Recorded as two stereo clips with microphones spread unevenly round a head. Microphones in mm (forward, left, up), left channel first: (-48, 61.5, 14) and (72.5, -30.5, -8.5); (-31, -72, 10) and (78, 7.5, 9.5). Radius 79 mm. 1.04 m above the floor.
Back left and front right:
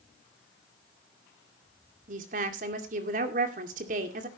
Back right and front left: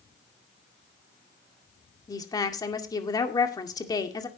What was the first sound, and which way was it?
A woman speaking, 80° right.